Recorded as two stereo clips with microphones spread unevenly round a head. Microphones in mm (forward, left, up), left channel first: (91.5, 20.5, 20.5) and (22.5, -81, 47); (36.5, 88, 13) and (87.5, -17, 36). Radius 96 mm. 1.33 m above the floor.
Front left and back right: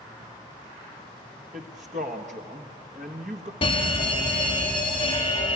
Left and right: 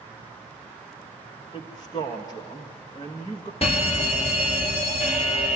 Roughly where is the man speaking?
Behind.